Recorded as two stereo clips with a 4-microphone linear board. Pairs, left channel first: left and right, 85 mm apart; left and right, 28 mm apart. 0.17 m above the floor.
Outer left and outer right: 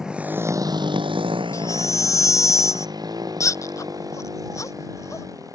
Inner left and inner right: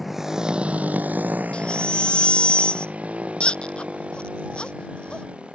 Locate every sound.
0.0 s a motorcycle: 5° right (ahead or behind); by 5.5 s 40° right (ahead or behind)
1.5 s a baby crying: 35° left (ahead or behind)